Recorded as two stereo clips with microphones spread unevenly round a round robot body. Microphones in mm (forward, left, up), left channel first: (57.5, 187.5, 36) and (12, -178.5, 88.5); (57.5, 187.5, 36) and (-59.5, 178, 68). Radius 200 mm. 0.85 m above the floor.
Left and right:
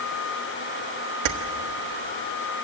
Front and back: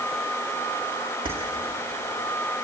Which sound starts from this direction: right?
Keys jangling, at 1.2 s.